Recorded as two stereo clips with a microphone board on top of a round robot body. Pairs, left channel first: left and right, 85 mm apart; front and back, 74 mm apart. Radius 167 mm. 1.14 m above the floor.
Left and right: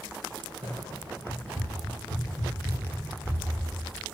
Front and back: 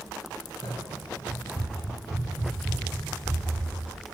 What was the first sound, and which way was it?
Running footsteps, 125° right.